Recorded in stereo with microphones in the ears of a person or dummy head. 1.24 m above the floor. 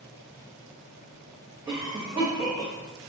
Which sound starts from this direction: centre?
A cough, at 1.7 s.